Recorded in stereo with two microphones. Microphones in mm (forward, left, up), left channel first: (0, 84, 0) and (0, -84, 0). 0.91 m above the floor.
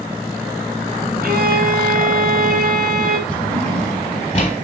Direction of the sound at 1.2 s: 60° right (ahead or behind).